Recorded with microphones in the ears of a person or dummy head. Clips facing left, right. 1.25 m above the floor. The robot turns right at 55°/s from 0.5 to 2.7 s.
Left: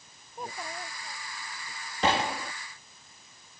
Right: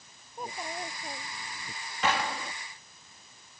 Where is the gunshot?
25° left (ahead or behind); by 2.5 s centre (ahead or behind).